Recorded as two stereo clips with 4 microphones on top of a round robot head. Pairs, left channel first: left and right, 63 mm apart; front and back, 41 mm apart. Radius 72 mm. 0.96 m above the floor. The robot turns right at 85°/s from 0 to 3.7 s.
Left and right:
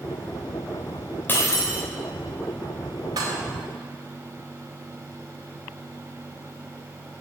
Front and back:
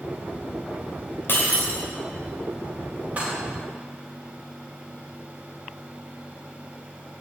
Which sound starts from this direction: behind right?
Dishes clattering, at 3.2 s.